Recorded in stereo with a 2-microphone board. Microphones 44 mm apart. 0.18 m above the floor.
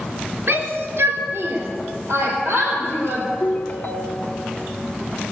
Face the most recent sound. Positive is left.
turn(degrees=35)  # may be behind; listen again after turning